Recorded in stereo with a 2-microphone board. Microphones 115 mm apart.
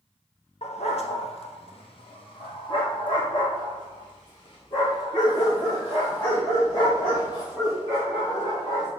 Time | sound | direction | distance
0.6 | a dog barking | 75° left (ahead or behind) | 1.0 m